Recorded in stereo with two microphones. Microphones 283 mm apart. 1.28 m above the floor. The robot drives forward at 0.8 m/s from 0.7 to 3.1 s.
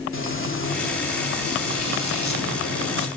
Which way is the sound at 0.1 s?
45° left (ahead or behind).